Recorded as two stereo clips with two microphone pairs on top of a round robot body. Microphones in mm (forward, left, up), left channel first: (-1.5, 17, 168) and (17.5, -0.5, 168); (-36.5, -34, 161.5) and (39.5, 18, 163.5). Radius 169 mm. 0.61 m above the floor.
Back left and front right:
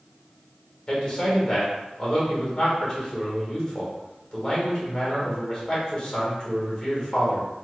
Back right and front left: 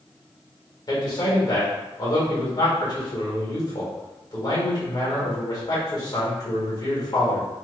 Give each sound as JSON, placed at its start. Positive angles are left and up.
{"t": 0.9, "sound": "a man speaking", "azimuth_deg": -170, "distance_m": 1.7}